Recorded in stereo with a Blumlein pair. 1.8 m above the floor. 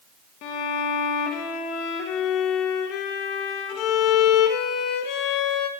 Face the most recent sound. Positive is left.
turn(degrees=40)